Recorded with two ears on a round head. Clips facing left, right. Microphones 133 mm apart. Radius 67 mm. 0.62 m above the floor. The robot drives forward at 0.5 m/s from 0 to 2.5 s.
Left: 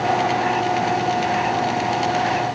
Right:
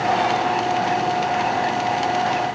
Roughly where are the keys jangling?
I don't hear keys jangling.